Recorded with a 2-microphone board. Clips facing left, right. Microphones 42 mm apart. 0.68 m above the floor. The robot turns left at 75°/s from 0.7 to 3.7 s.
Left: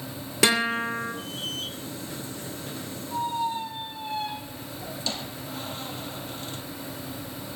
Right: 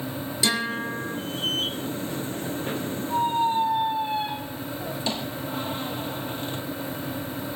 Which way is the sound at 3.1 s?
55° right (ahead or behind).